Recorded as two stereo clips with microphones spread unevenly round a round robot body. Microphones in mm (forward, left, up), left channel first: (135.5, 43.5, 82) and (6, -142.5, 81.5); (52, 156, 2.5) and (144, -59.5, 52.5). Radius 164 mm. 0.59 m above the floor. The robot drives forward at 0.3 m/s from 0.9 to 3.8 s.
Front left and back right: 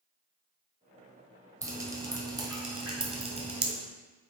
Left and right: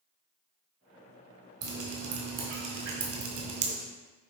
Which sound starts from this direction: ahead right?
Dripping, at 1.6 s.